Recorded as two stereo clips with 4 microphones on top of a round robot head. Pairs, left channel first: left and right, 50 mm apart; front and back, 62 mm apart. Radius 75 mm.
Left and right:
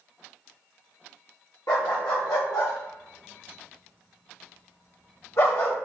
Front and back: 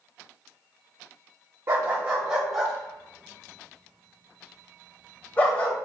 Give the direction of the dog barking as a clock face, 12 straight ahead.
7 o'clock.